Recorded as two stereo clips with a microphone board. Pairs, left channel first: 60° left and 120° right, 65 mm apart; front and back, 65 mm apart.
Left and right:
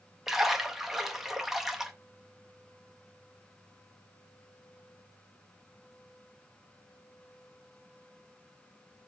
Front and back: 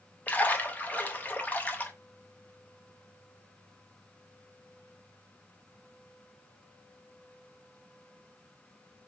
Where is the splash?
40° right, 0.7 m.